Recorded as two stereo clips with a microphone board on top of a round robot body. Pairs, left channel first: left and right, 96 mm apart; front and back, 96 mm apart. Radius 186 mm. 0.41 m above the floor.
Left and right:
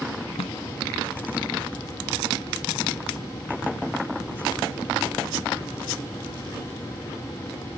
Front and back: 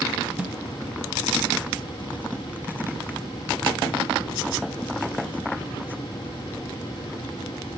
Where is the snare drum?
105° left, 0.8 m.